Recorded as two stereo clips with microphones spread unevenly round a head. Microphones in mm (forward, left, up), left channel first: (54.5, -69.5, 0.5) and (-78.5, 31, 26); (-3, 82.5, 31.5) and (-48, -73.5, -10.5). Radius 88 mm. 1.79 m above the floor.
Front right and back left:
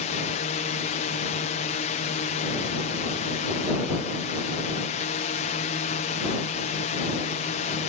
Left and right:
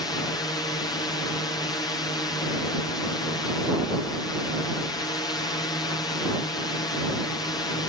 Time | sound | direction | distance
0.0 | a drone | straight ahead | ?